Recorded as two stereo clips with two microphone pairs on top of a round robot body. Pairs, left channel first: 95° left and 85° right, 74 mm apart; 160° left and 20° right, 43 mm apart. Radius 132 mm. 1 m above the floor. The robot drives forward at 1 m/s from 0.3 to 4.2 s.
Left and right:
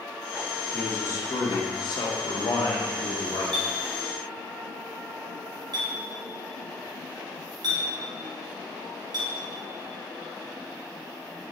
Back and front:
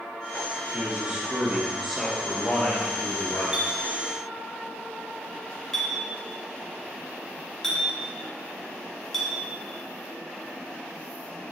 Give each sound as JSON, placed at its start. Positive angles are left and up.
{"t": 0.7, "sound": "a man speaking", "azimuth_deg": 40, "distance_m": 1.9}
{"t": 3.5, "sound": "a clink", "azimuth_deg": -95, "distance_m": 1.3}